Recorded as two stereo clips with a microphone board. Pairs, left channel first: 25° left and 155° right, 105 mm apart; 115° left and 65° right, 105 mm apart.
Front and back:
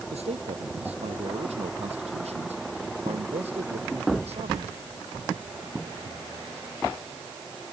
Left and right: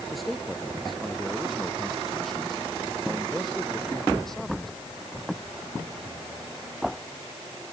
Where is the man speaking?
160° right.